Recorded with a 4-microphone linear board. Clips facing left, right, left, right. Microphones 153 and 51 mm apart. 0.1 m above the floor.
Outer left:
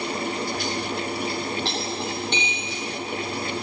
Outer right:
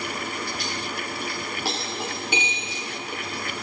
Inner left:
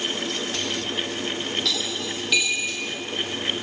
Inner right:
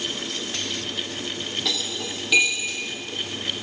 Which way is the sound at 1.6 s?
10° right (ahead or behind).